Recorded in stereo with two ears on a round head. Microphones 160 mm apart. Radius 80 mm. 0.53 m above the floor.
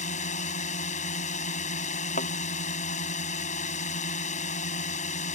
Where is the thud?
45° left (ahead or behind).